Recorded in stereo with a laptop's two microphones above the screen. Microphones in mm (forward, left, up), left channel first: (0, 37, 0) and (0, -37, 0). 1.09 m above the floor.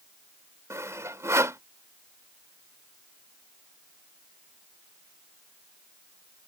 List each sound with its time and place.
0.7 s sawing: 40° right (ahead or behind)